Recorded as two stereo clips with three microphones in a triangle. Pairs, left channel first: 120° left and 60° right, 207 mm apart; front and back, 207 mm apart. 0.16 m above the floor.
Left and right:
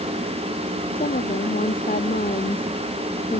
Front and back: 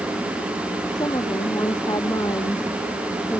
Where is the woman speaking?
70° left.